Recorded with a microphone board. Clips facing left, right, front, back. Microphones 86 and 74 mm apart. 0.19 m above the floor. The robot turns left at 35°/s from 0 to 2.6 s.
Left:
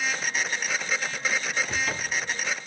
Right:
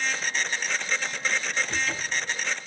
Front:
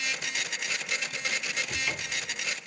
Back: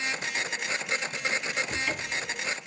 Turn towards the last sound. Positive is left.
turn(degrees=80)